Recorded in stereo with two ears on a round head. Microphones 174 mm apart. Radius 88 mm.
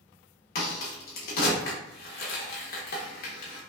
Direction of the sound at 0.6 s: 50° left (ahead or behind).